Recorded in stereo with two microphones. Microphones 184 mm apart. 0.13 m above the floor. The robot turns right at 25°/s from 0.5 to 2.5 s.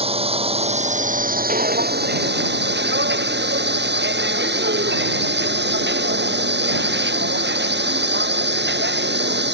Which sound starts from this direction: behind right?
A drone, at 0.0 s.